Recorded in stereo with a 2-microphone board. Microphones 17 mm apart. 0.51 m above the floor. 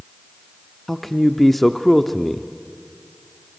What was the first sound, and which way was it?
A man speaking, 10° left (ahead or behind).